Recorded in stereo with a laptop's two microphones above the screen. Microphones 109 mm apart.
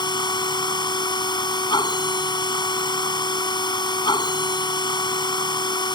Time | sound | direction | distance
0.0 | a machine running | 45° left (ahead or behind) | ?